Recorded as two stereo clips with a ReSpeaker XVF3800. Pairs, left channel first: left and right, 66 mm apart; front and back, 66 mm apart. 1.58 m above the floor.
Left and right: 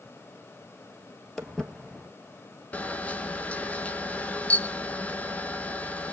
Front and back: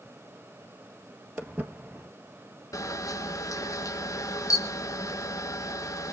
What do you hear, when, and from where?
1.4 s footsteps: 160° left, 1.7 m
2.7 s a camera shutter: 20° left, 1.2 m